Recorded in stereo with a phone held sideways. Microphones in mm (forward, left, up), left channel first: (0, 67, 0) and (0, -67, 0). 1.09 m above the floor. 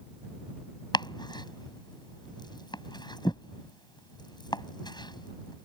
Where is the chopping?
30° left (ahead or behind).